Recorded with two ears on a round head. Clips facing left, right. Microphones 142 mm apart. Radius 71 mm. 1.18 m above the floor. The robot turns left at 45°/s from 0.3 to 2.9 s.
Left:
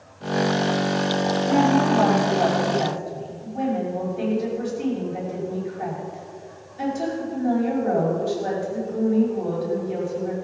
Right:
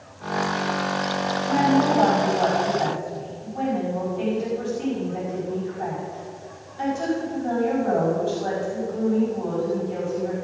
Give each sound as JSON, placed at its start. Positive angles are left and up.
{"t": 1.4, "sound": "a woman speaking", "azimuth_deg": 95, "distance_m": 5.5}